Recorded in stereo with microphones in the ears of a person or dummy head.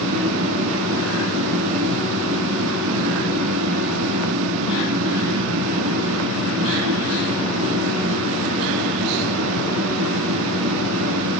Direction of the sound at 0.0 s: 75° right (ahead or behind).